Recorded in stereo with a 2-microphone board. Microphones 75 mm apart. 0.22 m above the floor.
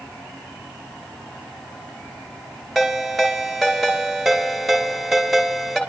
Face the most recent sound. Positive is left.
turn(degrees=-5)  # may be behind; listen again after turning